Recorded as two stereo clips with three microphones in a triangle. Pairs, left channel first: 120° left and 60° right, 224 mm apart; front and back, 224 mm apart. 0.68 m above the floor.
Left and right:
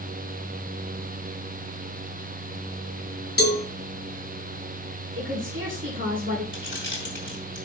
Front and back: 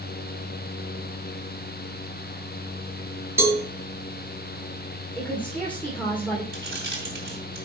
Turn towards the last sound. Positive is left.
turn(degrees=155)